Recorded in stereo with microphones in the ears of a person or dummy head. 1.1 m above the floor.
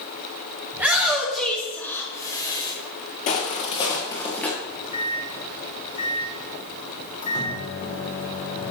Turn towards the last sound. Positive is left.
turn(degrees=40)  # may be behind; listen again after turning